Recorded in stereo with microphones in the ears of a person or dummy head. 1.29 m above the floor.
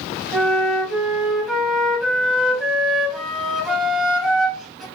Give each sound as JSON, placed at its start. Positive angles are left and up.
{"t": 0.3, "sound": "a flute", "side_deg": 0, "distance_m": 1.5}